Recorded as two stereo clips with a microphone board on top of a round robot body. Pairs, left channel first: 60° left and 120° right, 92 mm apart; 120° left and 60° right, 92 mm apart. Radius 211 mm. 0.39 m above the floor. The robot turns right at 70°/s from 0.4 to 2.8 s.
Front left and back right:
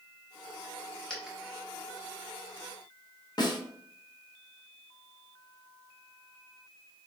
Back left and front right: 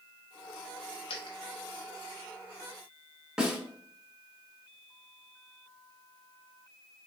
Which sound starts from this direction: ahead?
A snare drum, at 3.4 s.